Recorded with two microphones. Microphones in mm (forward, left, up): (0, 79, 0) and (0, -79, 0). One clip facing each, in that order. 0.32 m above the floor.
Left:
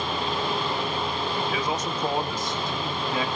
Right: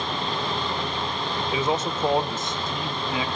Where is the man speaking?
25° right (ahead or behind), 1.0 m; by 3.2 s 15° right (ahead or behind), 2.5 m.